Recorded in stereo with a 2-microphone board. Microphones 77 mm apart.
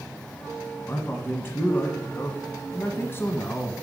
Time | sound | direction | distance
0.9 | a man speaking | 30° left (ahead or behind) | 1.2 m